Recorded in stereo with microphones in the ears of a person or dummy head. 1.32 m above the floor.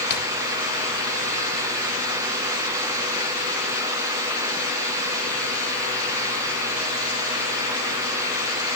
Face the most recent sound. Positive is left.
turn(degrees=50)  # may be behind; listen again after turning